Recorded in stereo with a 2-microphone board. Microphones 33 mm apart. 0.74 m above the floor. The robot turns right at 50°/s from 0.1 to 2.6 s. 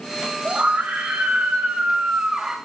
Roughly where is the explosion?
I don't hear an explosion.